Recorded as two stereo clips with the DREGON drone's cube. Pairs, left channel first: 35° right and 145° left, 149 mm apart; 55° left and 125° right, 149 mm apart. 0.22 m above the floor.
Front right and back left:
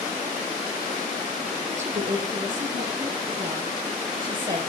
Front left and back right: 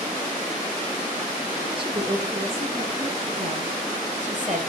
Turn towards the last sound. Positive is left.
turn(degrees=-155)